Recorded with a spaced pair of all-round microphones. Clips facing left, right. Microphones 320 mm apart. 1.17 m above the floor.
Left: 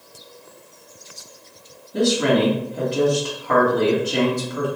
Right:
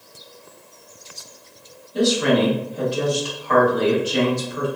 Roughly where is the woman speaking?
Left.